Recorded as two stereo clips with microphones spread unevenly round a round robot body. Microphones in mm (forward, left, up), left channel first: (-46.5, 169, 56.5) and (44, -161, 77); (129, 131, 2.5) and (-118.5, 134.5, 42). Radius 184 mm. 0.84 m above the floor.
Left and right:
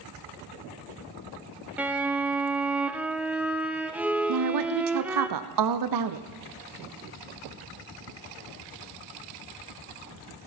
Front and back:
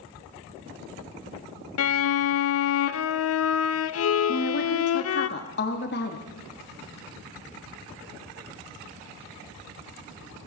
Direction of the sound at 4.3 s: 50° right.